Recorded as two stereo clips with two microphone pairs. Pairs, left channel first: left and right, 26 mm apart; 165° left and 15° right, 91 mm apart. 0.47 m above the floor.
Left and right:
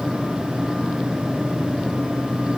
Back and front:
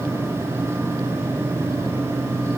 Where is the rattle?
I don't hear a rattle.